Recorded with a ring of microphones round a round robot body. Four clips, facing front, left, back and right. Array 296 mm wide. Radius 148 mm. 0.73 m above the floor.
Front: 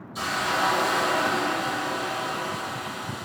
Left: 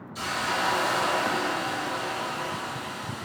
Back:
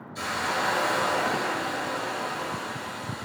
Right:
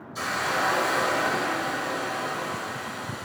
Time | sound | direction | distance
0.1 | a hiss | 35° right | 4.5 m